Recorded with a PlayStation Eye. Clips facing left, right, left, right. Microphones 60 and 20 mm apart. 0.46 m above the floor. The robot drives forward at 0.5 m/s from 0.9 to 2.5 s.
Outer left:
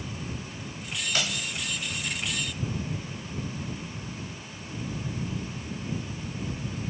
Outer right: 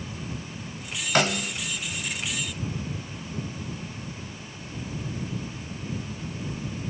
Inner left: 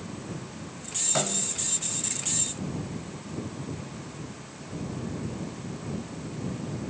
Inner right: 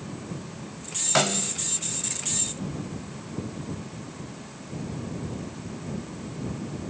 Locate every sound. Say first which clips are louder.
1.1 s a snare drum: outer right 10 dB, inner right 7 dB; 45° right (ahead or behind); by 1.5 s 55° right (ahead or behind)